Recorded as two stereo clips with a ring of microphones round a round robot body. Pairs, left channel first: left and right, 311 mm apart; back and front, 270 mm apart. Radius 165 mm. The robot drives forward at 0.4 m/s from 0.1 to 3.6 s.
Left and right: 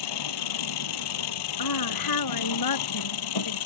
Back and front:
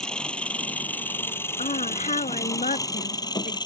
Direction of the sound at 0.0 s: 95° left.